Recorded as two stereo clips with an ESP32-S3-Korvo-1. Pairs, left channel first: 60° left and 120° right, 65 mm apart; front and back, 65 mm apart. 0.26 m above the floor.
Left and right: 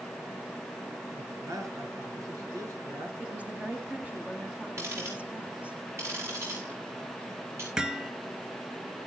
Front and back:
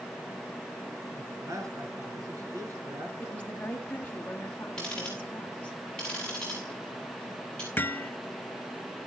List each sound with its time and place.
1.2 s a man speaking: 150° right, 3 m
3.2 s a woman speaking: 60° right, 1.4 m
4.8 s ticking: 75° right, 5.5 m
7.8 s hammering: 45° right, 0.7 m